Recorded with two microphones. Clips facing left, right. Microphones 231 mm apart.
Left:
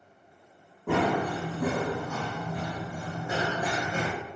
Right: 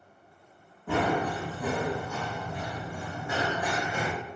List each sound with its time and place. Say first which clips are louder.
0.9 s running footsteps: left 1 dB; 75° left (ahead or behind), 1.4 m; by 4.1 s 20° left (ahead or behind), 1.4 m